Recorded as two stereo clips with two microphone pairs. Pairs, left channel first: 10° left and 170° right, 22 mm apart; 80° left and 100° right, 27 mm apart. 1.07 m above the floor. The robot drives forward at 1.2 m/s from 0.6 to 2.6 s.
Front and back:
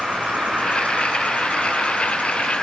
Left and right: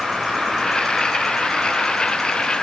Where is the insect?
Straight behind, 6 m.